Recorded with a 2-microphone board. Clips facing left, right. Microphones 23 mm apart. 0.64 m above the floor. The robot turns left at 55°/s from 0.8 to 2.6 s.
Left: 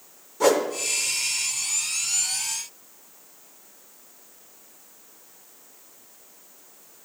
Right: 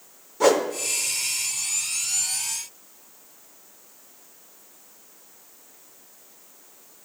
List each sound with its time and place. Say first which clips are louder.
0.4 s a whoosh: right 1 dB; 5° right (ahead or behind), 0.8 m